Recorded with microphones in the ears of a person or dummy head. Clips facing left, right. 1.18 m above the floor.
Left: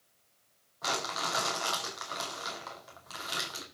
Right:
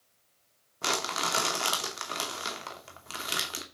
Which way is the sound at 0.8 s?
40° right (ahead or behind).